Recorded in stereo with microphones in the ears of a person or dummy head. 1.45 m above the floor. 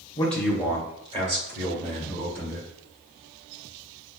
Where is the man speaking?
20° left (ahead or behind), 0.8 m; by 2.7 s 45° right (ahead or behind), 3 m.